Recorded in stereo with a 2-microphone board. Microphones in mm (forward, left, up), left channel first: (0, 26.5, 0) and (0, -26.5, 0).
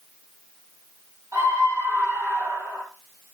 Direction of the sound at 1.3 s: 65° right (ahead or behind).